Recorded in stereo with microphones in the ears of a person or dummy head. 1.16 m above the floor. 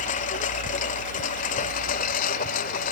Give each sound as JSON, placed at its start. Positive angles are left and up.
{"t": 0.0, "sound": "a lawn mower", "side_deg": 45}